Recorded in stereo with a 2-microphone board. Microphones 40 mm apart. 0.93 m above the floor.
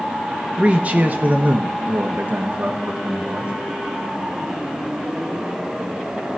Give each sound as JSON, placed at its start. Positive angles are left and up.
{"t": 0.6, "sound": "a man speaking", "side_deg": -30, "distance_m": 0.9}